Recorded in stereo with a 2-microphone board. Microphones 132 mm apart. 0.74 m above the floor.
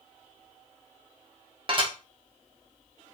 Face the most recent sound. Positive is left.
turn(degrees=-35)  # may be behind; listen again after turning